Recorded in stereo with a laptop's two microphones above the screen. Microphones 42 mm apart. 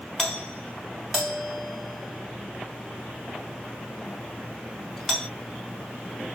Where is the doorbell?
Centre (ahead or behind), 1.3 m.